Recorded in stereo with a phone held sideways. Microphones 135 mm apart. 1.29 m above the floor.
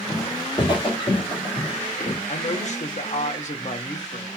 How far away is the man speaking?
About 0.9 m.